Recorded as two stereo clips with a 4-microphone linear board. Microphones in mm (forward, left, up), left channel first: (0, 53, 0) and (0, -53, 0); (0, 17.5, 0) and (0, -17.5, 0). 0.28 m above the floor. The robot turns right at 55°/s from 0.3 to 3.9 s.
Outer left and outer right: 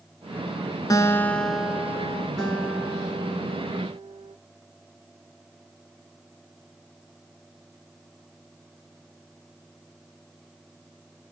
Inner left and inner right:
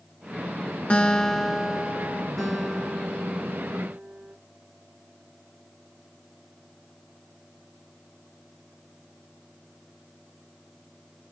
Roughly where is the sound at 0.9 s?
Behind left.